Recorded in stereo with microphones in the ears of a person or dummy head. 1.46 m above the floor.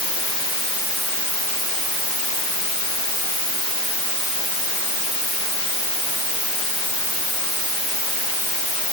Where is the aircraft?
No aircraft in this recording.